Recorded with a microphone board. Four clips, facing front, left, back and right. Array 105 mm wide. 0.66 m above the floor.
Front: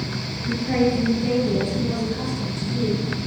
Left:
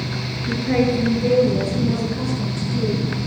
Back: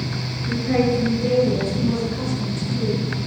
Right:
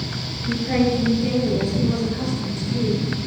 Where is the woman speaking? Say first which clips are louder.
Left 1 dB, back 1 dB; 110° left, 8.5 m.